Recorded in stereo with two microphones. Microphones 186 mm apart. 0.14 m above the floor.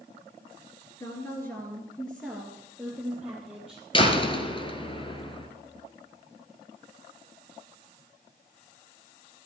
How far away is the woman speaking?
About 2 m.